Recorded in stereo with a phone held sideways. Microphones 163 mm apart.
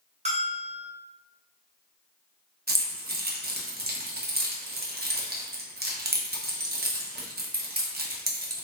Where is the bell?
45° right (ahead or behind), 0.7 m.